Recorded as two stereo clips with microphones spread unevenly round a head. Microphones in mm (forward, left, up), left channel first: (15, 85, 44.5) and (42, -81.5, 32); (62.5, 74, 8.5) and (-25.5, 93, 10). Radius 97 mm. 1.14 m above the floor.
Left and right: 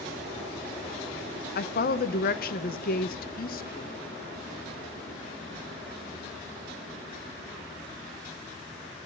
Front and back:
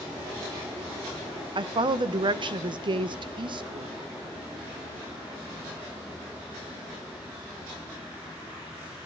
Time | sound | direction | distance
1.6 | a woman speaking | 140° left | 0.8 m